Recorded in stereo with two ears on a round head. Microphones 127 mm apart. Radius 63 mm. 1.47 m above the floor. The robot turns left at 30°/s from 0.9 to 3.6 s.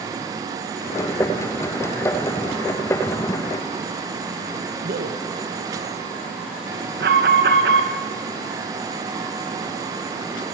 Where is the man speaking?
70° right (ahead or behind), 1.7 m.